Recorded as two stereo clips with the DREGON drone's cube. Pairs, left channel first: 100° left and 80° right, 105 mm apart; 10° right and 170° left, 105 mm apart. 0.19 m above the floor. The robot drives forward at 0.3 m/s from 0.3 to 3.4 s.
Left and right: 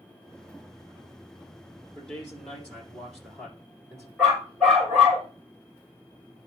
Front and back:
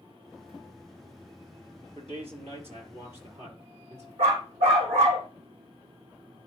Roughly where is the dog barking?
Behind.